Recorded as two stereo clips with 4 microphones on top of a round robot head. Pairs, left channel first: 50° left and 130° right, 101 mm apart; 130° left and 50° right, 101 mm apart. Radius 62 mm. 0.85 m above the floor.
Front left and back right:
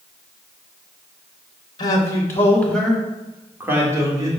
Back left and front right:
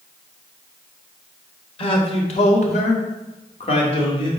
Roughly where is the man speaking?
Left.